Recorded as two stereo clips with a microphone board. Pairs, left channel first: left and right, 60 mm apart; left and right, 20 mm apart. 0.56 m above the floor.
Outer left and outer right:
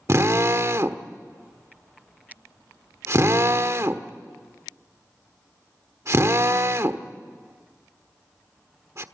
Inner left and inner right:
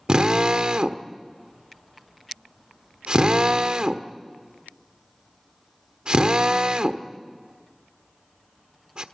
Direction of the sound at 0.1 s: 50° right (ahead or behind).